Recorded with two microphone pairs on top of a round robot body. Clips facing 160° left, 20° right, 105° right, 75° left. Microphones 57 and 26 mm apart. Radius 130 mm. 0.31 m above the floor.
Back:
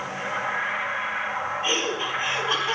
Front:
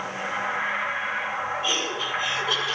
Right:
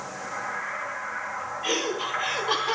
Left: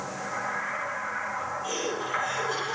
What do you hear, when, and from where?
1.6 s laughter: 140° right, 4 m